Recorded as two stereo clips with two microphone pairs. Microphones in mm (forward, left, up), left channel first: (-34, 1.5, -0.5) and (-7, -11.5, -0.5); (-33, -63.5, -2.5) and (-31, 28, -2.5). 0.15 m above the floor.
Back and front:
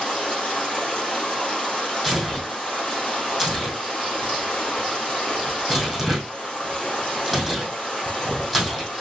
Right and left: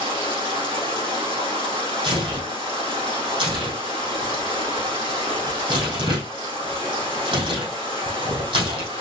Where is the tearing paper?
75° left, 3 m.